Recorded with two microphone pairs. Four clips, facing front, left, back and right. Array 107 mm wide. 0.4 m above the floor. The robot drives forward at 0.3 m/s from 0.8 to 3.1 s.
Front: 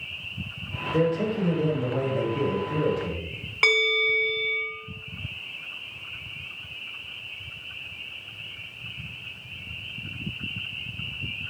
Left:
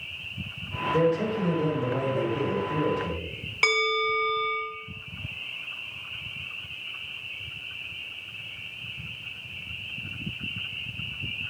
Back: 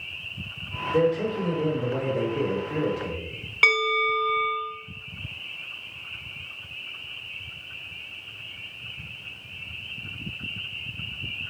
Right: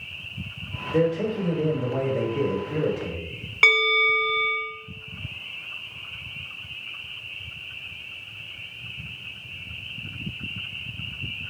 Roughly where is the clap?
I don't hear a clap.